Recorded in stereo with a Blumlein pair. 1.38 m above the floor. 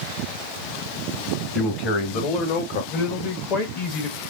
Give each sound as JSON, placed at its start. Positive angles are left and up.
{"t": 1.6, "sound": "a man speaking", "azimuth_deg": 35, "distance_m": 1.9}
{"t": 2.9, "sound": "a man speaking", "azimuth_deg": 35, "distance_m": 1.4}